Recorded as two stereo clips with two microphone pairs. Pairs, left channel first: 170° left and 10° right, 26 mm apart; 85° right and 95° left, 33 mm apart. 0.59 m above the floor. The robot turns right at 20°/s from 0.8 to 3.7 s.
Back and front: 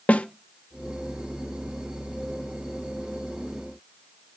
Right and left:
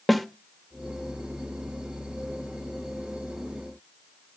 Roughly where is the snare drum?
Behind.